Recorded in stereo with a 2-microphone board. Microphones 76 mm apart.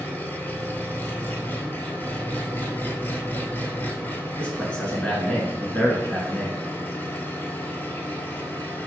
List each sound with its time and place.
0.0 s an engine running: 25° left (ahead or behind), 1.0 m
4.4 s a man speaking: 15° left (ahead or behind), 1.2 m